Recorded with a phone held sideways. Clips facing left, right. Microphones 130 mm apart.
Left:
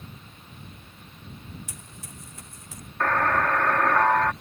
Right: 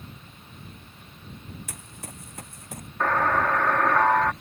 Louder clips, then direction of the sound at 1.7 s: Right 2 dB; 65° right (ahead or behind).